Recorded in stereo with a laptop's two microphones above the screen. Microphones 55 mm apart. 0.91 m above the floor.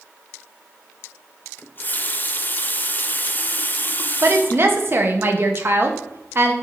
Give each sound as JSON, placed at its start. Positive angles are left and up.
{"t": 1.6, "sound": "a running tap", "side_deg": 35, "distance_m": 0.6}
{"t": 4.2, "sound": "a woman speaking", "side_deg": -45, "distance_m": 1.1}